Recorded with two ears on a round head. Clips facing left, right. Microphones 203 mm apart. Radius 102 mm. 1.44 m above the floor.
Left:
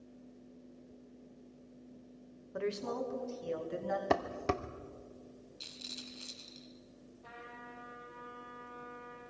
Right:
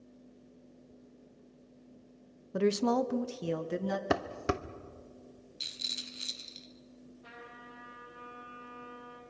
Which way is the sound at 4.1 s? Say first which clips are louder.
Left 1 dB; 10° right (ahead or behind).